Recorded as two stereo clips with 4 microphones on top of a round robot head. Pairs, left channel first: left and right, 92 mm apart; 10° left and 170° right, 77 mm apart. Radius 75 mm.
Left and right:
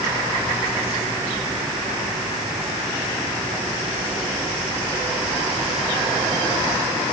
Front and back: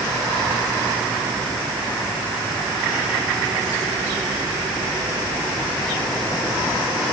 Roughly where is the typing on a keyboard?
No typing on a keyboard in this recording.